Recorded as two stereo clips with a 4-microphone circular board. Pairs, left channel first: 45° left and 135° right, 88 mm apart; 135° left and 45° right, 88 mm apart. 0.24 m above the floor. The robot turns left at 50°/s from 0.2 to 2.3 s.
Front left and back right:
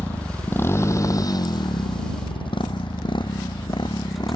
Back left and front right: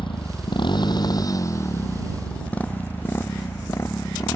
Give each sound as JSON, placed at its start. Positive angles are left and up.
{"t": 0.0, "sound": "a motorcycle", "azimuth_deg": 115}